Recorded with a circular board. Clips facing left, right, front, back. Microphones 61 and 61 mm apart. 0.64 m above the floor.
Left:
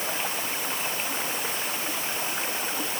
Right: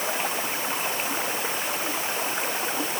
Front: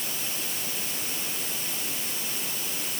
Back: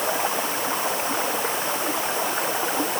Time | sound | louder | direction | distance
0.0 | running water | right 3 dB, back 13 dB | 170° right | ?